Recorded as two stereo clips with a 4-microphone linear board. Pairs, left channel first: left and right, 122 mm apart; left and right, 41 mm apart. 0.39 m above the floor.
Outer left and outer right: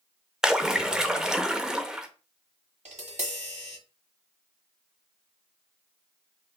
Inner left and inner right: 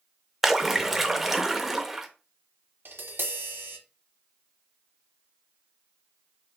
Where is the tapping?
70° right (ahead or behind), 1.1 m.